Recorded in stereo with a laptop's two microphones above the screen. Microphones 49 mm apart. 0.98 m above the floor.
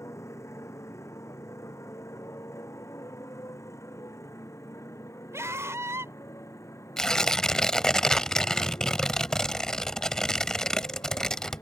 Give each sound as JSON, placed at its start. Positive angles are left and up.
{"t": 0.0, "sound": "a motorcycle", "side_deg": 75}
{"t": 5.3, "sound": "a scream", "side_deg": -70}
{"t": 7.0, "sound": "tearing paper", "side_deg": 10}